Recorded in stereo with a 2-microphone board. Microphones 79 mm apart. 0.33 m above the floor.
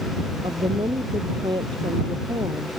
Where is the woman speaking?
80° right.